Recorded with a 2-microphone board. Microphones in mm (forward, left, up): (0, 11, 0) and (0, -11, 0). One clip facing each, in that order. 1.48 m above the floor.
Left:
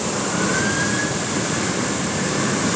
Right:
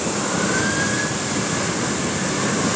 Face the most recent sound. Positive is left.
No sound to turn to.